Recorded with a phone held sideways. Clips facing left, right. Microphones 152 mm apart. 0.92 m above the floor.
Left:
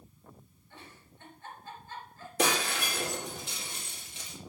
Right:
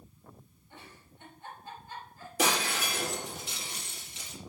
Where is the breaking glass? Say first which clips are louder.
Even; centre (ahead or behind), 3 m.